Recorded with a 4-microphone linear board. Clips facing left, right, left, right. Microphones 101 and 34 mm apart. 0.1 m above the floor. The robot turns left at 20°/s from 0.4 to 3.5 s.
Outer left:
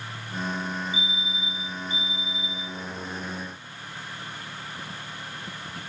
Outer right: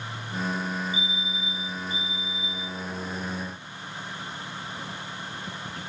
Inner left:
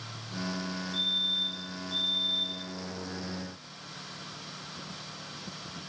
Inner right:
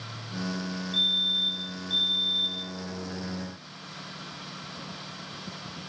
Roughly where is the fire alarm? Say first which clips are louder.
Even, inner right 4 dB; ahead right.